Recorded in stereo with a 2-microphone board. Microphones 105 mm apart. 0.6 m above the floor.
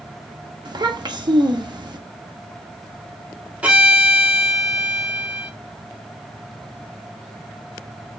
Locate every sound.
0.7 s a child speaking: 45° right (ahead or behind), 0.7 m
3.6 s a violin: 15° right (ahead or behind), 1.1 m